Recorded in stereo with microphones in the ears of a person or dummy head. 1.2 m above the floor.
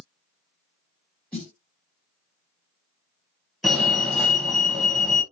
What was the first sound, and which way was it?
A snare drum, 10° left (ahead or behind).